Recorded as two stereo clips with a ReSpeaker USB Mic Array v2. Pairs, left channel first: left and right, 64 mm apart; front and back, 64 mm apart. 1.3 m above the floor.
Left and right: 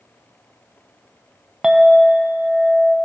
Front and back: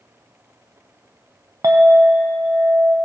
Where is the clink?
165° right, 0.7 m.